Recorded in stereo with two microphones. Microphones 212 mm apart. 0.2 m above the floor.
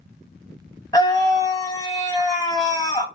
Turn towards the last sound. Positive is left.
turn(degrees=15)  # may be behind; listen again after turning